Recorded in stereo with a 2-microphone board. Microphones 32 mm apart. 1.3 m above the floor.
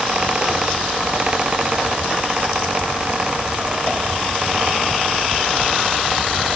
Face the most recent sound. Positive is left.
No sound to turn to.